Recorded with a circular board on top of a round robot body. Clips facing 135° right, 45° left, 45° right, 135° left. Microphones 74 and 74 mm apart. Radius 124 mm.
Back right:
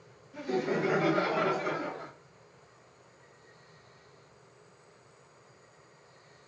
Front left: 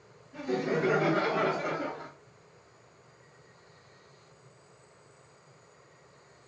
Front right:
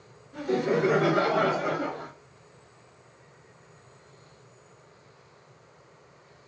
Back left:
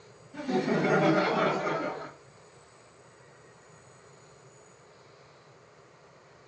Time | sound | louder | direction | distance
0.3 | laughter | front left 1 dB, front right 2 dB | 10° right | 2.5 m